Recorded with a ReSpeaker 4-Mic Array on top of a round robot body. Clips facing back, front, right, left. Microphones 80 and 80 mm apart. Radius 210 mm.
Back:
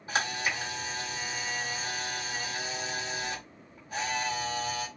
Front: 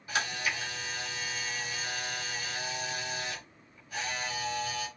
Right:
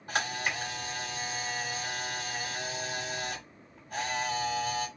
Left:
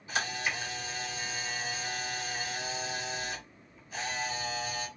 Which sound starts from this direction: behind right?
A camera shutter, at 0.1 s.